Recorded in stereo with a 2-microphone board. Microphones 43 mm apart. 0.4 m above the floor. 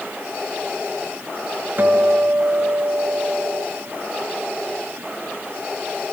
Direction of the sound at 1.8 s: 50° right (ahead or behind).